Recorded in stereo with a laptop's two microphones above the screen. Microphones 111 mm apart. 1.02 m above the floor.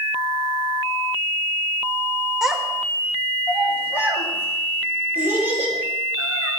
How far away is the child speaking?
About 1.0 m.